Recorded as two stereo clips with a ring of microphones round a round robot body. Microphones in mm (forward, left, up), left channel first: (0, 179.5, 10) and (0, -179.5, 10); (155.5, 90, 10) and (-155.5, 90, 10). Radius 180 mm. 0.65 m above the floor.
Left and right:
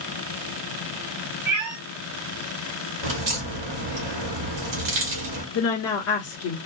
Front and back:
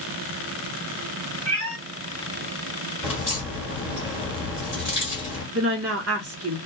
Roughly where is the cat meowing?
Behind right.